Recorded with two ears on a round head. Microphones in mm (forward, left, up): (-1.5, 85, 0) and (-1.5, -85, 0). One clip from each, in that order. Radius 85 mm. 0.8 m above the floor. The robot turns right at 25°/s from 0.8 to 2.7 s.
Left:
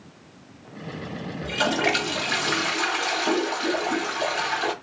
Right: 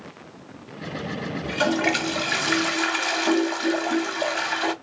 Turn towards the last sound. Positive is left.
turn(degrees=-155)